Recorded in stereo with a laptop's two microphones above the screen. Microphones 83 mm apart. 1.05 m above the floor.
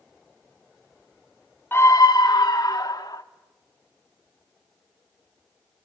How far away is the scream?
About 0.7 m.